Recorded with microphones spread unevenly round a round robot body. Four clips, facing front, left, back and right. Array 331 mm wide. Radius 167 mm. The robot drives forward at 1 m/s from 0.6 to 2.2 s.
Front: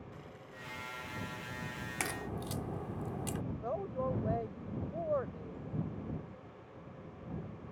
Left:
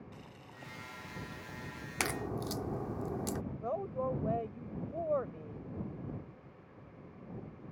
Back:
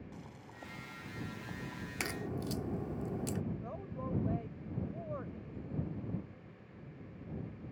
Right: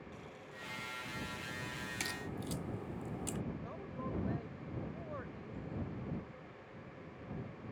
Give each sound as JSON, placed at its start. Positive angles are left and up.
{"t": 0.1, "sound": "boiling", "azimuth_deg": 155}
{"t": 2.0, "sound": "a crack", "azimuth_deg": 85}
{"t": 3.6, "sound": "a woman speaking", "azimuth_deg": 50}